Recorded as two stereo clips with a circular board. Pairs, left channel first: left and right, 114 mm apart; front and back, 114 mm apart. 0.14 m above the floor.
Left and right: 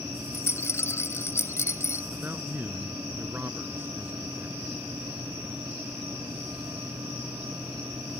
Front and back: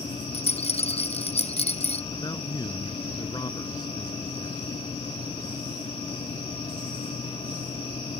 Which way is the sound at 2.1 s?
25° right.